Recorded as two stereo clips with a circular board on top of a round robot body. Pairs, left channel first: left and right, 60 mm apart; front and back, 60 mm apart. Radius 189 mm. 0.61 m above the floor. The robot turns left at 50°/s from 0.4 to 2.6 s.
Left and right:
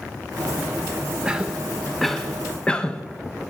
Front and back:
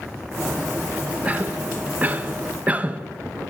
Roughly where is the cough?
Behind right.